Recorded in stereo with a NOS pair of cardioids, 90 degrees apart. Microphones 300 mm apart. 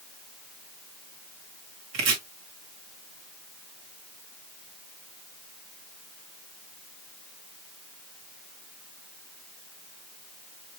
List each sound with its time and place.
1.9 s chopping: 60° right, 1.6 m